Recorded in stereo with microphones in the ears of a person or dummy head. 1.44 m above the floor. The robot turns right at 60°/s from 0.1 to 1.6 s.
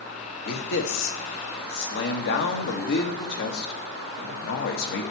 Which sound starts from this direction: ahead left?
A man speaking, at 0.5 s.